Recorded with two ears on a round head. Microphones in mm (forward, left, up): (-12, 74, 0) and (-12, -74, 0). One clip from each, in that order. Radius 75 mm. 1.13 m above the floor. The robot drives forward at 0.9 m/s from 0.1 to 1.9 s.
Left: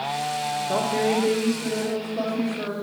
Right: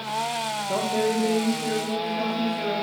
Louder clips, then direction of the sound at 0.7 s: Left 1 dB; 25° left (ahead or behind).